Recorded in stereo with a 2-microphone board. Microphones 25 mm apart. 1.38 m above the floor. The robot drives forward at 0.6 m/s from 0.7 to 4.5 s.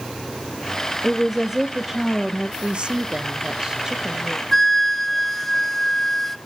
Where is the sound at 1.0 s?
30° right (ahead or behind), 0.8 m; by 2.5 s 15° right (ahead or behind), 1.6 m.